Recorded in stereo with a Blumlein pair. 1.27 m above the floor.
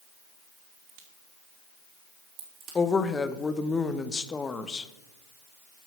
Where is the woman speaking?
15° left, 0.9 m.